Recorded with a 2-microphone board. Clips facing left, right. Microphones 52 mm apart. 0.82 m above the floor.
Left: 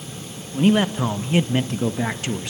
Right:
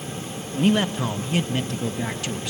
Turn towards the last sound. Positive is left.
turn(degrees=25)  # may be behind; listen again after turning